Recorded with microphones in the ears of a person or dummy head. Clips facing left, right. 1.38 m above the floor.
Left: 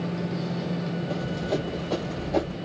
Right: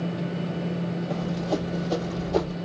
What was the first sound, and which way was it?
Running footsteps, 5° right (ahead or behind).